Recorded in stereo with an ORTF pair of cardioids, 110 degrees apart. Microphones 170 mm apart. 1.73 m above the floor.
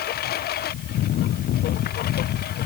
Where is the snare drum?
I don't hear a snare drum.